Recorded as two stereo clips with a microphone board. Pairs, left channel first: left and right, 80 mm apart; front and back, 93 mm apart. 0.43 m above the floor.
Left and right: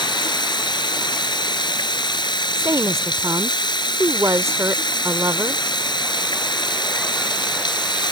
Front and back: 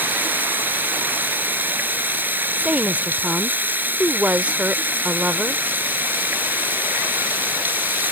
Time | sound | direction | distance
0.0 | running water | 110° left | ?
2.6 | a woman speaking | 110° right | ?